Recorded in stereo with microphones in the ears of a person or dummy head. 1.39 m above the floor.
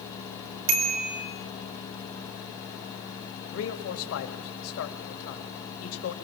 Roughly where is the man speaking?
Left.